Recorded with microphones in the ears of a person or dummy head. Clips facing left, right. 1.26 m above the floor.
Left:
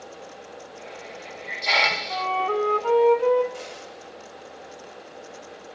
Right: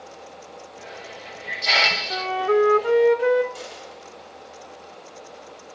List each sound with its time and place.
0.8 s a hiss: 5° right (ahead or behind), 1.0 m
2.1 s a flute: 20° right (ahead or behind), 1.1 m
3.5 s a dropped coin: 40° left (ahead or behind), 9.5 m